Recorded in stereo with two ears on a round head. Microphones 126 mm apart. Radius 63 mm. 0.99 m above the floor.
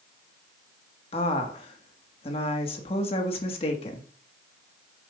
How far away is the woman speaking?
About 1.4 m.